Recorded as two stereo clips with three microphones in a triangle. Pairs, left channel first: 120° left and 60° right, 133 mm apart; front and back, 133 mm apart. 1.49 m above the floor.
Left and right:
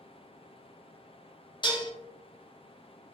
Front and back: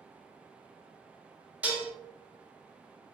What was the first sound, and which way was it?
Dishes clattering, 105° left.